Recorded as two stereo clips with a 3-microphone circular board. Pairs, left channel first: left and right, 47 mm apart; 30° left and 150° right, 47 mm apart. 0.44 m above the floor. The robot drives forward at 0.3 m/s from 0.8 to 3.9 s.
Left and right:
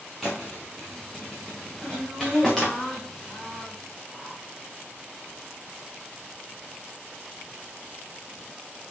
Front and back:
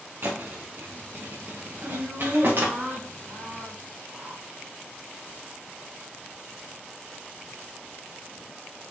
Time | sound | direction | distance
0.2 | a thud | straight behind | 3 m
1.8 | laughter | 170° left | 4 m